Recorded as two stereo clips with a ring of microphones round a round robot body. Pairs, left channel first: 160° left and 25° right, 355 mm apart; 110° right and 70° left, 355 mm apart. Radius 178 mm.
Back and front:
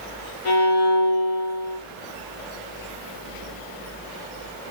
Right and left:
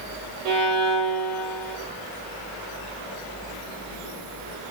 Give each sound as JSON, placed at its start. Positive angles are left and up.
{"t": 0.5, "sound": "a violin", "azimuth_deg": 115, "distance_m": 1.3}